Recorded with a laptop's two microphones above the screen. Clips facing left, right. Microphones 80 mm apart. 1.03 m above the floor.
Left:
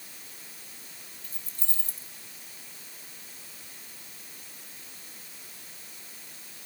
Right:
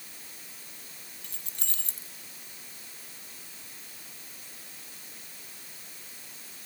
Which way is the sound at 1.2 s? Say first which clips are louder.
Right 1 dB; 70° right (ahead or behind).